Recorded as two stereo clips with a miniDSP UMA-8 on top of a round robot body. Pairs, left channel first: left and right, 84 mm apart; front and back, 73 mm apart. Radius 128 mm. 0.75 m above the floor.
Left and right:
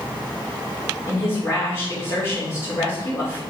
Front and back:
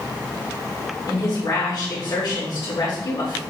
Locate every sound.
1.1 s a woman speaking: 40° left, 3 m